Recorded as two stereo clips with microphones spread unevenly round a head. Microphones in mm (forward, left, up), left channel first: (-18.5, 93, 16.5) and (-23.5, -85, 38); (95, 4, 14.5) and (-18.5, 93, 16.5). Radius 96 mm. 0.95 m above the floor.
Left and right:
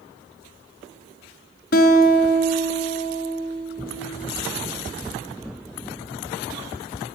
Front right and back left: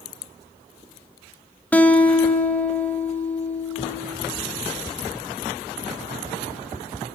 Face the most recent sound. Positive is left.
turn(degrees=40)